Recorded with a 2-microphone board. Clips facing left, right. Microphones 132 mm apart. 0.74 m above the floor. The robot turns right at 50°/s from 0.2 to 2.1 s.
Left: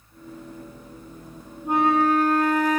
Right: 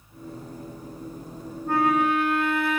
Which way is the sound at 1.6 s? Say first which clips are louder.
Left 2 dB; 15° left (ahead or behind).